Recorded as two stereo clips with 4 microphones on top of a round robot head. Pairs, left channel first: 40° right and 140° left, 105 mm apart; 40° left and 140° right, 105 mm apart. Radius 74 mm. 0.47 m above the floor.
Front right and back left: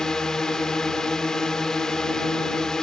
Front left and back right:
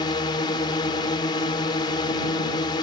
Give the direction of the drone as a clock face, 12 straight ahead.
11 o'clock.